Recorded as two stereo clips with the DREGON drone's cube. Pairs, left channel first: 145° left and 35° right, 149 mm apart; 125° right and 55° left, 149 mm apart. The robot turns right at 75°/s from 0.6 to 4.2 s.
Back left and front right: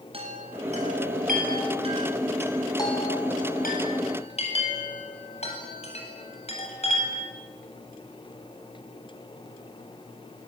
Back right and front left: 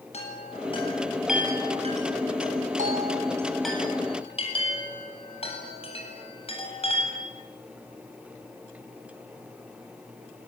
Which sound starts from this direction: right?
A chime, at 0.1 s.